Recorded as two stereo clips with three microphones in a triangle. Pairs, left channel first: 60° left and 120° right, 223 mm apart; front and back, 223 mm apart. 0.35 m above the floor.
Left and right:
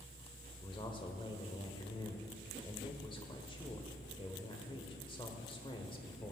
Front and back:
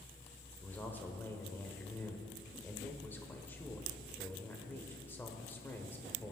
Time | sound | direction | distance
0.6 | a man speaking | 65° left | 1.0 m